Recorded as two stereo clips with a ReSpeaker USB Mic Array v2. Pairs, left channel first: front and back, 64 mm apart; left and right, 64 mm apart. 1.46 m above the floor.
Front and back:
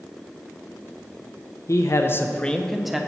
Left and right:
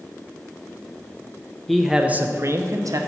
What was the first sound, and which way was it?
A man speaking, 5° left.